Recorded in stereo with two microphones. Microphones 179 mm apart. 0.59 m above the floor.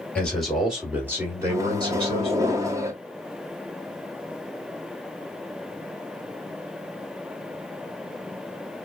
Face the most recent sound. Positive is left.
turn(degrees=-15)  # may be behind; listen again after turning